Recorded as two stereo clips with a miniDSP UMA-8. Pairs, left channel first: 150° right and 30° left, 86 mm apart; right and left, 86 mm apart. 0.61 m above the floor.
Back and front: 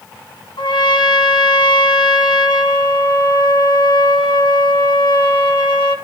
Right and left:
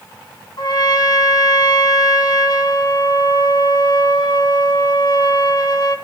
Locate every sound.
0.6 s a trumpet: 125° right, 2.5 m